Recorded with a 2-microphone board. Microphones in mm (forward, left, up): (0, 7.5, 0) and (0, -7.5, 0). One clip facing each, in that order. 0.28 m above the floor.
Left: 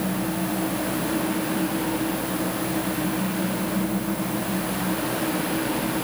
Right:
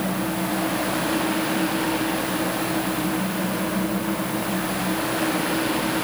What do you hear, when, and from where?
Only background noise.